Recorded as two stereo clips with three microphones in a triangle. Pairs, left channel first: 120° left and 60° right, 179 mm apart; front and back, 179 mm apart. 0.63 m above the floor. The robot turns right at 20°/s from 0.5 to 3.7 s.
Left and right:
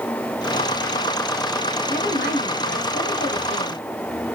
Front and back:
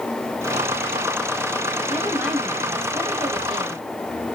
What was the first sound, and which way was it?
A woman speaking, 85° left.